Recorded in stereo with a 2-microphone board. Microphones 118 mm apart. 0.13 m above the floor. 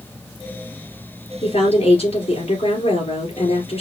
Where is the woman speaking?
60° left (ahead or behind), 3 m.